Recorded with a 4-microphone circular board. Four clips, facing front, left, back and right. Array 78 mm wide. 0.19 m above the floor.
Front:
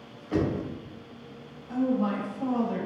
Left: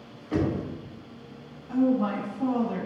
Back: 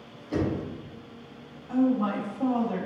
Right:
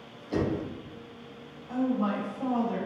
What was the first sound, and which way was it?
Knocking, 55° left.